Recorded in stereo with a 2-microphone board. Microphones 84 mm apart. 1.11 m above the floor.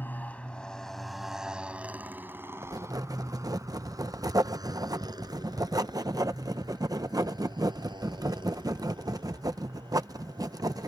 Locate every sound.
0.0 s a motorcycle: 25° left (ahead or behind); by 10.9 s 70° right (ahead or behind)
2.6 s writing: 50° right (ahead or behind)